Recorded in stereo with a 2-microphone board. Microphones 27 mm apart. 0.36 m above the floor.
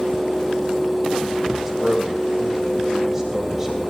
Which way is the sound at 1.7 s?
15° right (ahead or behind).